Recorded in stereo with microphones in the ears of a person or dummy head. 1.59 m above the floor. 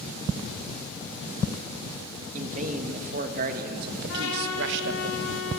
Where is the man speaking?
35° right (ahead or behind), 3 m; by 5.1 s 70° right (ahead or behind), 1.9 m.